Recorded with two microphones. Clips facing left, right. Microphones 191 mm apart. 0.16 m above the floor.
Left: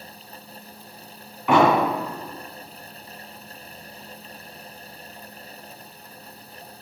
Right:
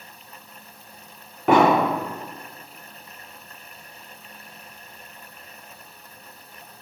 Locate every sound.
1.5 s an explosion: 65° right (ahead or behind), 3.5 m